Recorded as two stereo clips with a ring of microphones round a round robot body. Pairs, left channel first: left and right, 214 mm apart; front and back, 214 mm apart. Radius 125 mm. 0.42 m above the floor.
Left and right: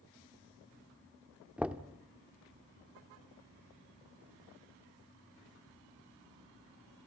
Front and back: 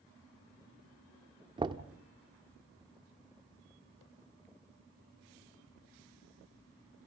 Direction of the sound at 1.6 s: 165° right.